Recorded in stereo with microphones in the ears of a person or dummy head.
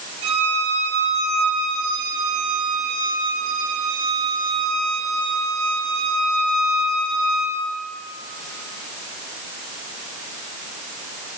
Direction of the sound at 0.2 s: 70° right (ahead or behind).